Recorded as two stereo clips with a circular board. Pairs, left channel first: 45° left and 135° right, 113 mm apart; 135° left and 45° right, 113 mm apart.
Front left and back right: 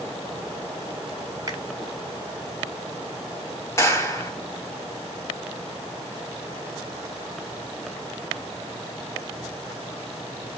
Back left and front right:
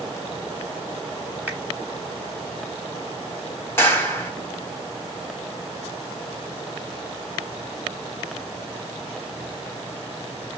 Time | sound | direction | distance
1.5 | a finger snap | 110° right | 0.8 m
3.8 | a clap | 85° left | 0.9 m